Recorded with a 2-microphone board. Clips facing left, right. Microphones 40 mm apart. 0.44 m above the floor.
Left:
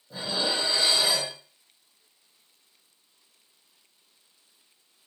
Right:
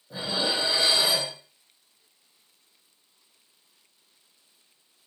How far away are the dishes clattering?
About 1.3 m.